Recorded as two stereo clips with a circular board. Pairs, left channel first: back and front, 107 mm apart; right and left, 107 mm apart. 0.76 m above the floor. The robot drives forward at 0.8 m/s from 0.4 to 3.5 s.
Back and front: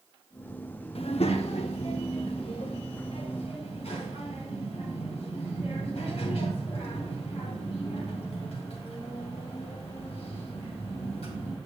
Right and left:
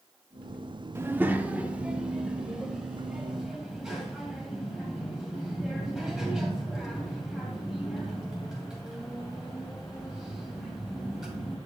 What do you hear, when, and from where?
0.9 s a child speaking: 155° left, 0.7 m; by 11.6 s 175° left, 2.5 m